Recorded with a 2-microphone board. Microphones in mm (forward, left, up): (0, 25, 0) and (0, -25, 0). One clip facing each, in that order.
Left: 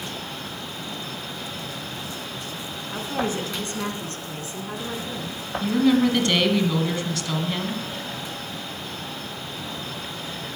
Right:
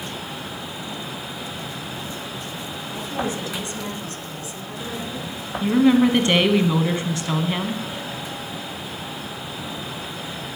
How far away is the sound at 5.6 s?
About 1.1 m.